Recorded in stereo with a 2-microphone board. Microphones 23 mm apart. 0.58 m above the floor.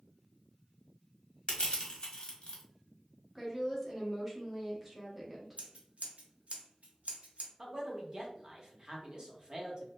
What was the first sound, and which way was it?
Crushing, 40° left (ahead or behind).